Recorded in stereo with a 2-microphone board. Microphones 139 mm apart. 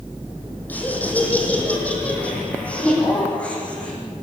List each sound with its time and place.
0.7 s laughter: 10° left (ahead or behind), 6 m